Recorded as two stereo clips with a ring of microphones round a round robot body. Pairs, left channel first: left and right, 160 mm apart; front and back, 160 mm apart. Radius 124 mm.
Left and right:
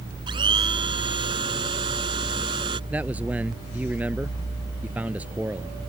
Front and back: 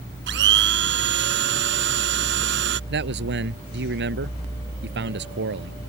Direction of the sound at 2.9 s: 175° right.